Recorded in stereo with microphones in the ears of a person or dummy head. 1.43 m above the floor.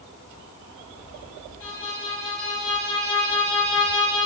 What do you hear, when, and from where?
1.6 s a violin: 20° left (ahead or behind), 1.4 m